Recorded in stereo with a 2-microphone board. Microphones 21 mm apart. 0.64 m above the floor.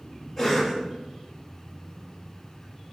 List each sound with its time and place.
0.4 s a cough: 5° right (ahead or behind), 1.7 m